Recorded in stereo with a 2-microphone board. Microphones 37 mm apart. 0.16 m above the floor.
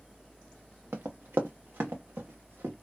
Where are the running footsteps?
80° right, 0.9 m; by 2.7 s 75° right (ahead or behind), 1.8 m.